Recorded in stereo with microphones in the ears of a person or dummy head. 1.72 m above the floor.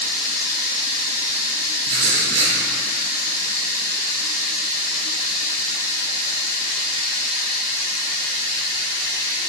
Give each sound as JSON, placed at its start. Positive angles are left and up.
{"t": 0.0, "sound": "running water", "side_deg": 55, "distance_m": 0.9}
{"t": 1.9, "sound": "writing", "side_deg": -35, "distance_m": 1.4}